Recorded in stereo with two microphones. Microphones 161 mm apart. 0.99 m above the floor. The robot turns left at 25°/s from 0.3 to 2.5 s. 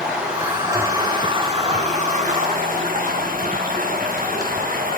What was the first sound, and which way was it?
Running water, 5° right.